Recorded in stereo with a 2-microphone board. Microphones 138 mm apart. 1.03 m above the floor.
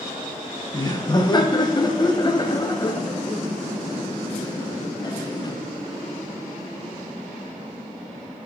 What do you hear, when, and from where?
0.7 s laughter: 30° left (ahead or behind), 0.7 m